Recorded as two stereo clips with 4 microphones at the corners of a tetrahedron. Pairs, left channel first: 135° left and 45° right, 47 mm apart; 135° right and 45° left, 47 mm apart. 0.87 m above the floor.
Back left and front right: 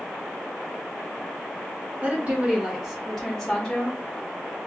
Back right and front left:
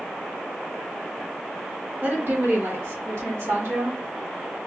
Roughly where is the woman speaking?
Ahead.